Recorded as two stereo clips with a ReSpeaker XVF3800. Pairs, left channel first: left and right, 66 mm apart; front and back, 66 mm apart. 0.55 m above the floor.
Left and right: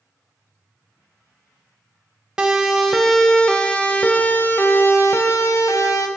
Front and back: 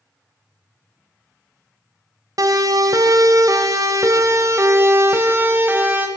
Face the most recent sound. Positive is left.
turn(degrees=120)